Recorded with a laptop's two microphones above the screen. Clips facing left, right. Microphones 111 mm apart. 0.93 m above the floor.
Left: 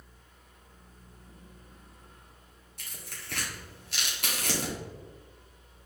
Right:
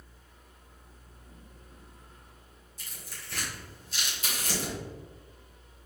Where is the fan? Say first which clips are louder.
Right 1 dB; 5° right (ahead or behind), 1.3 m.